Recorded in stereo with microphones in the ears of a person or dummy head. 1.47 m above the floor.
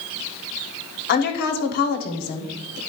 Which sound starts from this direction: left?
A woman speaking, at 1.1 s.